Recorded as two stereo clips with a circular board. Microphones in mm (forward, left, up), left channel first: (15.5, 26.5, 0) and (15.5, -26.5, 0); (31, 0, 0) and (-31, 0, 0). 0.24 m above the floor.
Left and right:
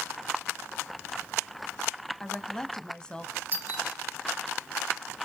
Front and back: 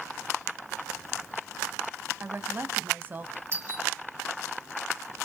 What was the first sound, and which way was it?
A woman speaking, 155° left.